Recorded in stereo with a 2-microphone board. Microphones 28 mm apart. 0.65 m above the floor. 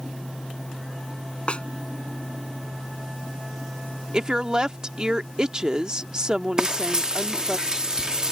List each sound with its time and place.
1.5 s a snare drum: 40° left (ahead or behind)
4.1 s a woman speaking: 30° right (ahead or behind)
6.6 s frying: 30° right (ahead or behind)